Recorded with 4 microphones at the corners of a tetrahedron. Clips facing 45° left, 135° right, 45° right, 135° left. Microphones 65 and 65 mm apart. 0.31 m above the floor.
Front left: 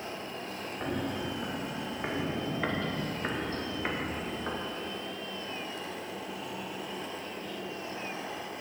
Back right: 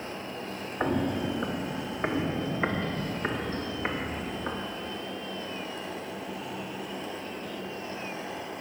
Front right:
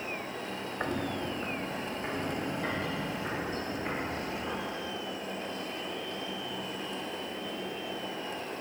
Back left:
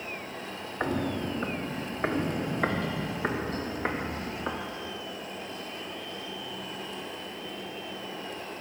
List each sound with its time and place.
0.8 s footsteps: 150° right, 0.7 m; by 4.6 s 145° left, 2.5 m